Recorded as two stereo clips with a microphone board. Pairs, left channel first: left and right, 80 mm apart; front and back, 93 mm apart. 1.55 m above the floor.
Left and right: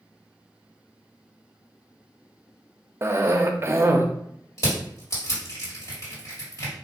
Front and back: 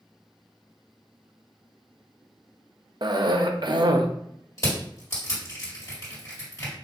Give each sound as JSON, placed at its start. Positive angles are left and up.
{"t": 3.0, "sound": "a cough", "azimuth_deg": -145, "distance_m": 0.5}
{"t": 4.6, "sound": "crushing", "azimuth_deg": 50, "distance_m": 2.0}